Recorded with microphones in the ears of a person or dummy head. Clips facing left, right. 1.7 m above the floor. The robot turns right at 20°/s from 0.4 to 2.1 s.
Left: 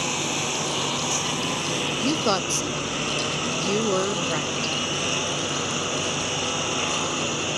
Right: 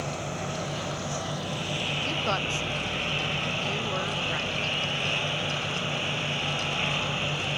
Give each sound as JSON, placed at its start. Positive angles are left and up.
{"t": 0.0, "sound": "a lawn mower", "azimuth_deg": 90}
{"t": 2.0, "sound": "a woman speaking", "side_deg": 60}